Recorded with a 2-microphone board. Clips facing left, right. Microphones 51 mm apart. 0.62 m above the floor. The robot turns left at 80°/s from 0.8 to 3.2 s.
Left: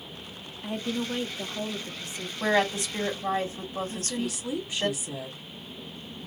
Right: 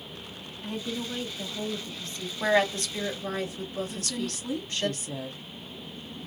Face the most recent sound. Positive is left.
turn(degrees=10)  # may be behind; listen again after turning